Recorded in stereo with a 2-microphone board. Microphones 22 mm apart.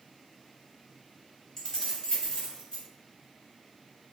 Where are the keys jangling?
25° left (ahead or behind), 0.8 m; by 2.8 s 55° left (ahead or behind), 1.5 m.